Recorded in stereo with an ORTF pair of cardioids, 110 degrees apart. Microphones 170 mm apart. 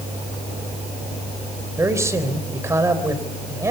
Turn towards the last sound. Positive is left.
turn(degrees=-15)